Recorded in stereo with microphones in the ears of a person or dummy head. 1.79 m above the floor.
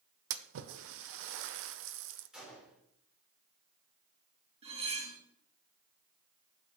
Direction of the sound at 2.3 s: 5° right (ahead or behind).